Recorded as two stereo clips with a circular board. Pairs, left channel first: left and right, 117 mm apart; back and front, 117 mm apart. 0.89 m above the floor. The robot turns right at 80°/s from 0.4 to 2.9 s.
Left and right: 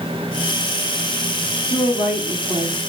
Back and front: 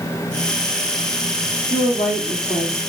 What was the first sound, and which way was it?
A woman speaking, 155° left.